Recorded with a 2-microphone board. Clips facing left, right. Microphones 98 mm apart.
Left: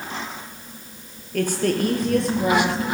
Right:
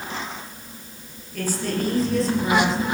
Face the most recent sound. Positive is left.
turn(degrees=65)  # may be behind; listen again after turning